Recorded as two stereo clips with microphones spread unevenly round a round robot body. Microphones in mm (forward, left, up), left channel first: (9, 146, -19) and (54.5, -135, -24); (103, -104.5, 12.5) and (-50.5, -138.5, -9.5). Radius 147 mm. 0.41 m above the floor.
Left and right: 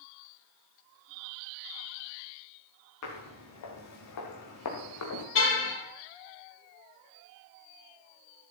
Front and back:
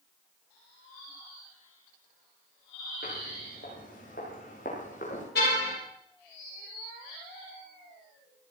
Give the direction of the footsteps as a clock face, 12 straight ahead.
10 o'clock.